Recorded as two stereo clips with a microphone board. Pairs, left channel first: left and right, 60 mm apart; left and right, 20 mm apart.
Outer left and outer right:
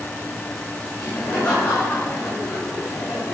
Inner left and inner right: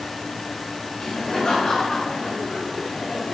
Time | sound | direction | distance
1.0 | laughter | 25° left (ahead or behind) | 7.5 m